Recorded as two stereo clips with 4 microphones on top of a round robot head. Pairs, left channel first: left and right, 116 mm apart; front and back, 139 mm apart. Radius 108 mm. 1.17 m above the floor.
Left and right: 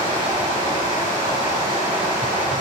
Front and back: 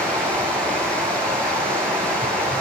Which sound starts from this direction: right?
Running water, at 0.0 s.